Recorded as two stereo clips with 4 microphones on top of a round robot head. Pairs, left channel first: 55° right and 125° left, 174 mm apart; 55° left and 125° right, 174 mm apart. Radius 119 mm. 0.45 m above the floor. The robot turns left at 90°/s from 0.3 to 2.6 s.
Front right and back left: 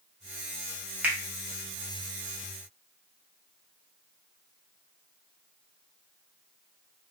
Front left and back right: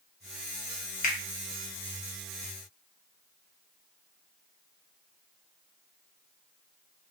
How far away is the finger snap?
About 1.1 m.